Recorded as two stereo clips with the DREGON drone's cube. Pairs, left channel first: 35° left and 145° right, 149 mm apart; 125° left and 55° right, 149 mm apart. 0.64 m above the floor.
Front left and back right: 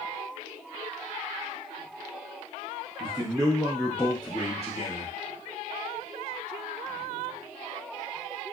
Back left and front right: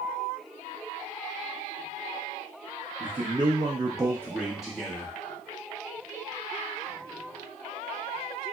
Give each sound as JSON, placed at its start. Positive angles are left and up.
{"t": 3.0, "sound": "a man speaking", "azimuth_deg": -100, "distance_m": 0.7}